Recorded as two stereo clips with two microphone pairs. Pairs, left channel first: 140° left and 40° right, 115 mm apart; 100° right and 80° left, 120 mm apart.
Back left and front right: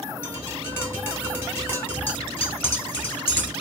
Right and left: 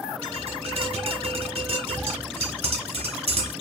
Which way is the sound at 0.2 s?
75° left.